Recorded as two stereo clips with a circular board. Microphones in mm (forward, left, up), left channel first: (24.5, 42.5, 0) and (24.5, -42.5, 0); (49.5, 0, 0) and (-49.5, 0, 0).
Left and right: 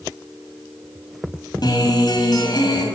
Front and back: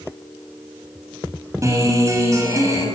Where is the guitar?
120° left, 6 m.